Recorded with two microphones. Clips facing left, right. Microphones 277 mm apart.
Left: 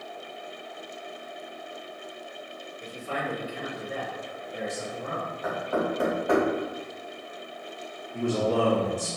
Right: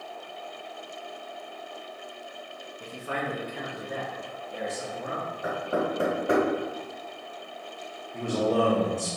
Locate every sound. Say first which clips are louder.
2.8 s a man speaking: even; 65° right (ahead or behind), 1.0 m; by 5.3 s 15° right (ahead or behind), 1.8 m
5.4 s knocking: even; 35° right (ahead or behind), 1.9 m
8.1 s a man speaking: even; centre (ahead or behind), 0.8 m